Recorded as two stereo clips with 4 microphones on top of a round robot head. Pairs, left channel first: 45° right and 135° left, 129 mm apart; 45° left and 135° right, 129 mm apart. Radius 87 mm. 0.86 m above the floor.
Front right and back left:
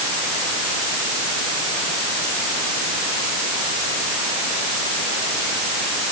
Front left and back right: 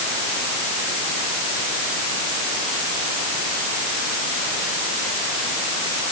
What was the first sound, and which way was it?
Only background noise.